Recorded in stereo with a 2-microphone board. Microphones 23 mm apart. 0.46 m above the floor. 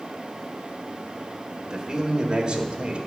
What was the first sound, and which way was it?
A man speaking, 30° right (ahead or behind).